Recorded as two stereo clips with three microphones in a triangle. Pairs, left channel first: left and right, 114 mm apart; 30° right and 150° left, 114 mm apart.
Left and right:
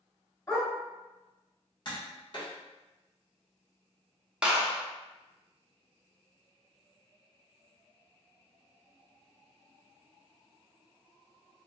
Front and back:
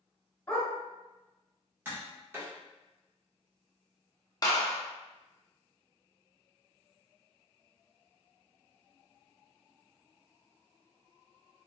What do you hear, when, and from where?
0.5 s a dog barking: 30° left, 2.0 m
1.9 s tapping: 90° left, 1.1 m
4.4 s a clap: 15° right, 0.7 m